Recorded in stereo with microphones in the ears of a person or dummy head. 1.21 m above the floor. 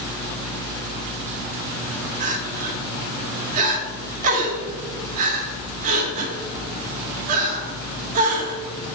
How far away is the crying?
About 2.5 m.